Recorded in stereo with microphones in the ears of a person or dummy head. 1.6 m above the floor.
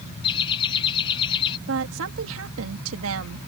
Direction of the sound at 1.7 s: 75° right (ahead or behind).